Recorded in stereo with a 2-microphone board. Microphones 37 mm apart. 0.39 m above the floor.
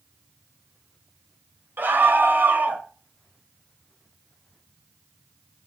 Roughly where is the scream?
Right.